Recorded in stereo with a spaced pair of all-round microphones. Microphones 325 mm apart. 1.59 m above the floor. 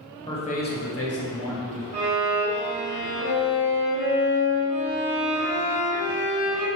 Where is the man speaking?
15° left (ahead or behind), 0.5 m; by 1.8 s 55° left (ahead or behind), 0.8 m.